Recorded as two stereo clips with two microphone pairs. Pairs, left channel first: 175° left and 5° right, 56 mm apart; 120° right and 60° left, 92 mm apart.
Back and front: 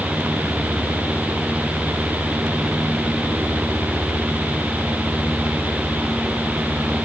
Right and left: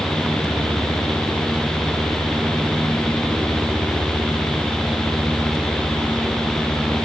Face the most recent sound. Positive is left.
No sound to turn to.